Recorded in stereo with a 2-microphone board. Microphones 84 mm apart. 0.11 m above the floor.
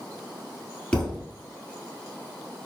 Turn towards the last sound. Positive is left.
turn(degrees=15)  # may be behind; listen again after turning